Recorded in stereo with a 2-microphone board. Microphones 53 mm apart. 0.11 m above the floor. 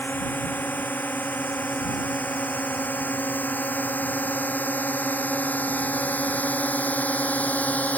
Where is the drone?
35° left (ahead or behind); by 8.0 s 30° left (ahead or behind).